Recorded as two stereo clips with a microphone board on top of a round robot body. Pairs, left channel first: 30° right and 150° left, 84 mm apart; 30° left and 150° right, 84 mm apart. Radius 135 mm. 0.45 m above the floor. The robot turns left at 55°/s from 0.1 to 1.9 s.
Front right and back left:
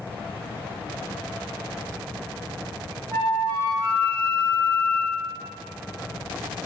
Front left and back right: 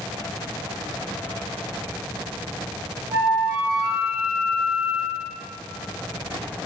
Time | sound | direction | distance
3.1 | a flute | 90° right | 1.8 m